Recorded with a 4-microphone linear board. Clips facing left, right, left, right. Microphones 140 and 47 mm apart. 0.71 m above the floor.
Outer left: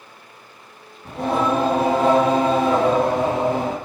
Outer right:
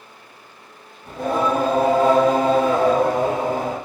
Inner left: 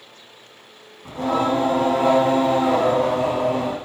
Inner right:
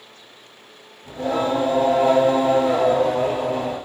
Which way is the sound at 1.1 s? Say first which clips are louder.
Even, inner left 1 dB; 75° left (ahead or behind).